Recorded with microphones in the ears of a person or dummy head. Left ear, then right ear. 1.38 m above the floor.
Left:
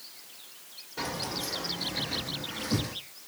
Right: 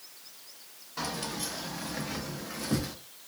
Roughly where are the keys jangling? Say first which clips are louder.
Left 1 dB; right.